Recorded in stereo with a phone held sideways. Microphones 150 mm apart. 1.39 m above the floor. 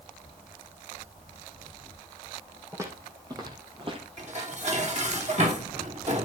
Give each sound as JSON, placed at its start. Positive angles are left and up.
{"t": 2.7, "sound": "footsteps", "side_deg": -20, "distance_m": 4.0}
{"t": 4.2, "sound": "dishes clattering", "side_deg": -50, "distance_m": 2.5}